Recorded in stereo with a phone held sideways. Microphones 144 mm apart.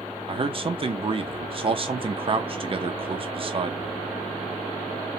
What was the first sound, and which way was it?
A man speaking, 40° right (ahead or behind).